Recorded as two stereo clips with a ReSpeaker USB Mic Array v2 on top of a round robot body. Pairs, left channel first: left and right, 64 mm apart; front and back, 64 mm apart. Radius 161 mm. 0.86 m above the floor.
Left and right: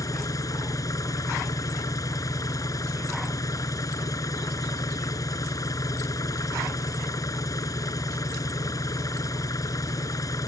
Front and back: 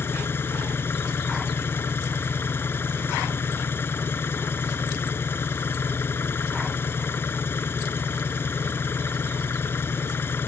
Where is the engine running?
55° left.